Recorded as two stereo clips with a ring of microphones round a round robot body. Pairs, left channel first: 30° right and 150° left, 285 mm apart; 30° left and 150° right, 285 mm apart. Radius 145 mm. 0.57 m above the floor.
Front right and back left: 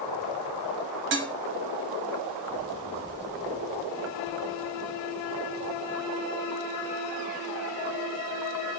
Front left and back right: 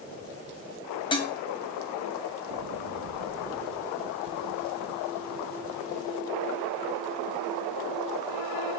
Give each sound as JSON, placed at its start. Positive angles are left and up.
{"t": 1.1, "sound": "dishes clattering", "azimuth_deg": 100, "distance_m": 0.6}